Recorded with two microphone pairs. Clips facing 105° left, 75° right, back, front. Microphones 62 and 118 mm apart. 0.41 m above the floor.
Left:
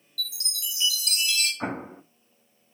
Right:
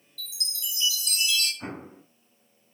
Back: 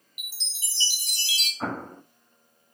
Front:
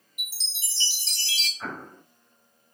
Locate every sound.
0.2 s a chime: 105° left, 1.4 m
1.6 s an explosion: 135° left, 0.7 m